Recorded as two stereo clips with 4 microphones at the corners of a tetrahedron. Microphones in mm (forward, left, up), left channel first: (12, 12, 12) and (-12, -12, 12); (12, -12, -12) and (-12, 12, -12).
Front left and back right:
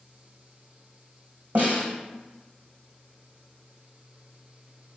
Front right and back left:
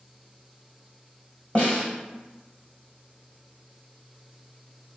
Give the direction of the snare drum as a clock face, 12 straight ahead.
3 o'clock.